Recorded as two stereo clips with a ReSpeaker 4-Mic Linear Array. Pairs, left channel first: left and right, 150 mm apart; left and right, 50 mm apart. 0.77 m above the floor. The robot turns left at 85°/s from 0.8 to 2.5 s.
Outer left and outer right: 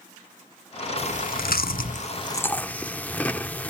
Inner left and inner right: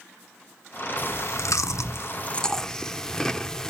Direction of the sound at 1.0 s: 40° left (ahead or behind).